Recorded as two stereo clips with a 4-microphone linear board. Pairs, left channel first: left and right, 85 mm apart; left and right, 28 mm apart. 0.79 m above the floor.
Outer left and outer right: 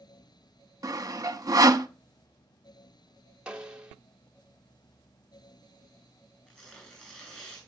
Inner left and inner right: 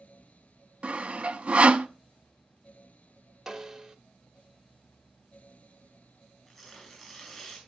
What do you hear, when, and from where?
0.8 s sawing: 45° right (ahead or behind), 0.8 m
3.5 s a snare drum: 10° right (ahead or behind), 1.2 m
6.5 s tearing paper: 10° left (ahead or behind), 9.5 m